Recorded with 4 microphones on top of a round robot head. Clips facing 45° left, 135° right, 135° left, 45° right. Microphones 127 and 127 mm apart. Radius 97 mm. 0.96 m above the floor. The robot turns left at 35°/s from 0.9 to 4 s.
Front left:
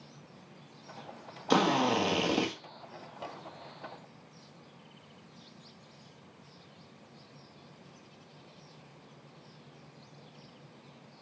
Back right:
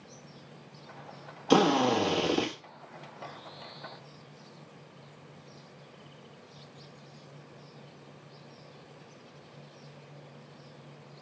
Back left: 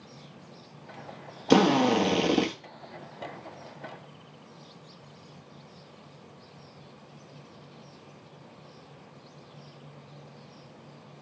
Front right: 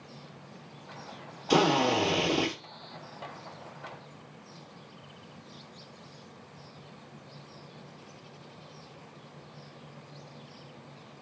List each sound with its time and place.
1.5 s a drill: 145° left, 1.4 m; by 2.5 s 110° left, 1.4 m